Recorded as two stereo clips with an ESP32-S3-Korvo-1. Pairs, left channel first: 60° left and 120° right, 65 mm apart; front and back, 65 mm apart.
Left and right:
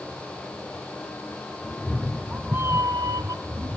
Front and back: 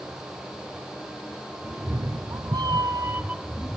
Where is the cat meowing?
140° left, 1.3 m; by 3.8 s 95° right, 1.2 m.